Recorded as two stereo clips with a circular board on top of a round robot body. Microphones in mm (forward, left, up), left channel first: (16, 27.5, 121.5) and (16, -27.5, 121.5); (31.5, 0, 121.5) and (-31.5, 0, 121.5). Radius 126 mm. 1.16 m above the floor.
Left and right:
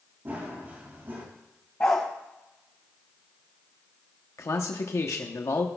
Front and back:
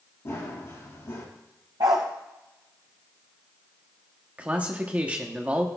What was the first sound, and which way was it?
Running footsteps, 45° right.